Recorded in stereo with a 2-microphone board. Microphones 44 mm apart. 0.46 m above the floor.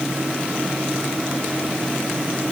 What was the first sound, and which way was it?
Only background noise.